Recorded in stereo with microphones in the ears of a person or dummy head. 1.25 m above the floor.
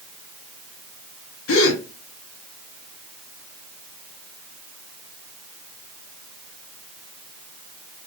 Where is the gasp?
60° left (ahead or behind), 0.8 m.